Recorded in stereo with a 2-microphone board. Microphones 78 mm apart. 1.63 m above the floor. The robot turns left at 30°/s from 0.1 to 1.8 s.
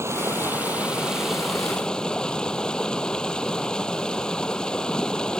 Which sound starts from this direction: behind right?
Running water, at 0.0 s.